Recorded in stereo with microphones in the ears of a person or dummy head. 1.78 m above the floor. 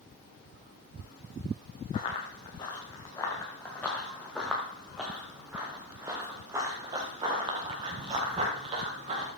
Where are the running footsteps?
30° left (ahead or behind), 4.5 m; by 9.3 s 40° right (ahead or behind), 6.5 m.